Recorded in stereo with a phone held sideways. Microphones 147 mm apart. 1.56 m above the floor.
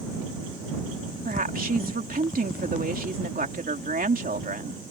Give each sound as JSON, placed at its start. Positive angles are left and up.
{"t": 1.2, "sound": "a woman speaking", "side_deg": -75}